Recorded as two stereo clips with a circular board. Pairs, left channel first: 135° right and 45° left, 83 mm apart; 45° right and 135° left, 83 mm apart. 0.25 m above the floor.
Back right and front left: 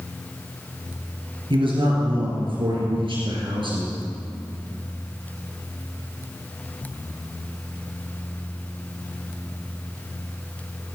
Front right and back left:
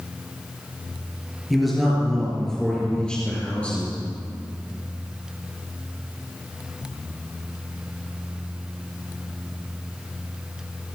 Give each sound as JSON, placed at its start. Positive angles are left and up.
{"t": 1.5, "sound": "a man speaking", "azimuth_deg": 45, "distance_m": 4.0}